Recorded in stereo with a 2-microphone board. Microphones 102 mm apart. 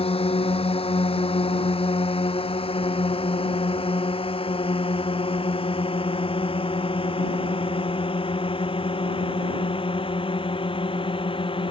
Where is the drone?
65° left (ahead or behind); by 11.7 s 60° left (ahead or behind).